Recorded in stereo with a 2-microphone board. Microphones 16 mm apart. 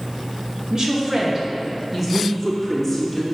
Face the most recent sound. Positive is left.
turn(degrees=5)  # may be behind; listen again after turning